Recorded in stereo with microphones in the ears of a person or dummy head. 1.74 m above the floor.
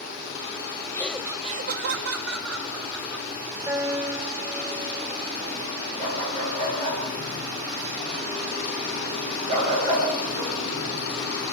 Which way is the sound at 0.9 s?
15° left (ahead or behind).